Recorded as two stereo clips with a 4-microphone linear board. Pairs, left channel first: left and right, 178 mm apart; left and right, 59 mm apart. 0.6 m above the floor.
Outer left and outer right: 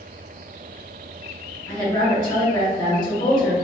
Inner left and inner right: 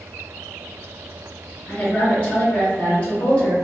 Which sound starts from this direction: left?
A woman speaking, at 1.7 s.